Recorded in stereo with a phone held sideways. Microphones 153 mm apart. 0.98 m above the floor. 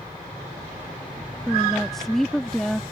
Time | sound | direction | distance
1.5 | a woman speaking | 5° left (ahead or behind) | ?